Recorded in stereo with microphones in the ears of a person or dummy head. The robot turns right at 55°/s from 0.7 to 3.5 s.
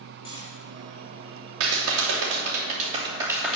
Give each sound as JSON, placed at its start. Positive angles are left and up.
{"t": 0.2, "sound": "cutlery clinking", "side_deg": 30, "distance_m": 4.0}
{"t": 1.6, "sound": "a clap", "azimuth_deg": -110, "distance_m": 3.0}